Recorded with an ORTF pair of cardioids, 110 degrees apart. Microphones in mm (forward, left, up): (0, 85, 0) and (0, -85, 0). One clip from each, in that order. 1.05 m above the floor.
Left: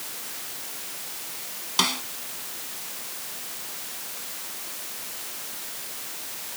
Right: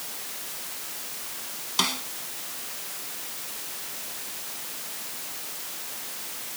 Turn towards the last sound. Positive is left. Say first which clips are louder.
# left 2 dB
turn(degrees=10)